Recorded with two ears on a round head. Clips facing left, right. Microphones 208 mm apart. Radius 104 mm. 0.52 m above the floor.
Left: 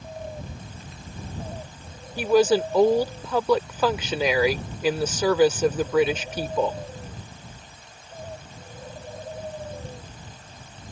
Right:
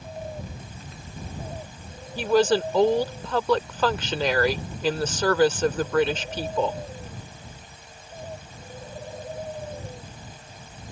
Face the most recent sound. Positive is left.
turn(degrees=5)  # may be behind; listen again after turning